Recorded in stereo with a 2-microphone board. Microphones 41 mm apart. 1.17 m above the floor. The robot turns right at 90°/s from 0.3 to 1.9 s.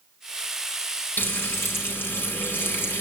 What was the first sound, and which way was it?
Frying, 55° left.